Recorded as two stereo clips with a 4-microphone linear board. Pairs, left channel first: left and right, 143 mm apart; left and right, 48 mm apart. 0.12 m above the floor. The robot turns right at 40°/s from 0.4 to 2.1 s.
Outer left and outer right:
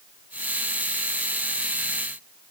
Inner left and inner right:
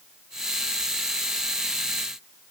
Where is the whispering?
I don't hear whispering.